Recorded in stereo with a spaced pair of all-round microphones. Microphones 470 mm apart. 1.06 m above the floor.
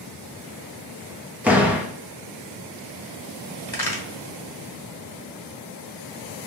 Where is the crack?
50° left (ahead or behind), 1.4 m.